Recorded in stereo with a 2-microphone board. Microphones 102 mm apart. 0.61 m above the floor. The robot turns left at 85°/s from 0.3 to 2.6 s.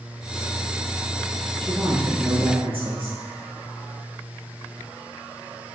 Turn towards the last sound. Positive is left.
turn(degrees=-65)